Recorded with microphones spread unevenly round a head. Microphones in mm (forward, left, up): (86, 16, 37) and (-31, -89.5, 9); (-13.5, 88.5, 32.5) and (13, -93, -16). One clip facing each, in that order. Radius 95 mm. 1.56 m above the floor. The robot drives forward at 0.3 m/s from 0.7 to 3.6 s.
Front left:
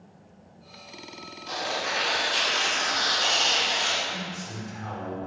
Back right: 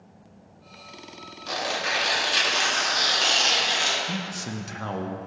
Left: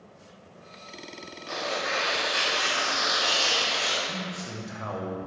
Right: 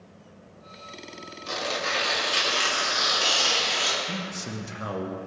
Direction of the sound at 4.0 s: 135° right.